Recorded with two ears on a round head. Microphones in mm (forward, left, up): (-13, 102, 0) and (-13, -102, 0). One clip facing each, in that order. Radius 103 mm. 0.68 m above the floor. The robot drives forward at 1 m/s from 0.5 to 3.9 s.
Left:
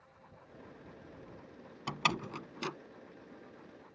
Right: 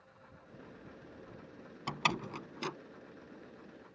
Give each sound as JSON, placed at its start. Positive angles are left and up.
{"t": 1.9, "sound": "a door slam", "side_deg": 0}